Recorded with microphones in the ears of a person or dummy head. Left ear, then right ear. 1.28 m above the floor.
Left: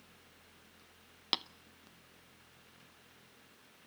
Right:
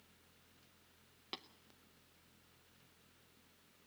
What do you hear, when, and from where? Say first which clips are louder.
1.3 s tapping: left 14 dB; 35° left (ahead or behind), 0.6 m